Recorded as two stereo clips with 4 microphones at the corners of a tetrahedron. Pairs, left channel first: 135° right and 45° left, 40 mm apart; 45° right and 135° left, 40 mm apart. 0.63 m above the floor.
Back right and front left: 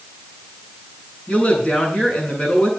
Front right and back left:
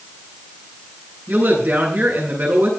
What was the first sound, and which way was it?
A woman speaking, 165° left.